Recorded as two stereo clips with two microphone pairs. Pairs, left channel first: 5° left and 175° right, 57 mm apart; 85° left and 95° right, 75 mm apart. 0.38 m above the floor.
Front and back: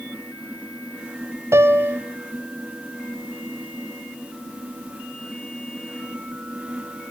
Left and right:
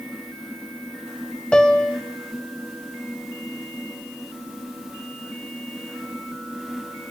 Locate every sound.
1.5 s a piano: 165° left, 1.4 m